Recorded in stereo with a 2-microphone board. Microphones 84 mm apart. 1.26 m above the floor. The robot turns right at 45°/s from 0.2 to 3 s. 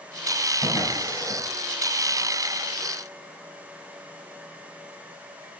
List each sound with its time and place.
0.6 s a drawer: 60° left (ahead or behind), 3 m; by 1.4 s 70° left (ahead or behind), 3 m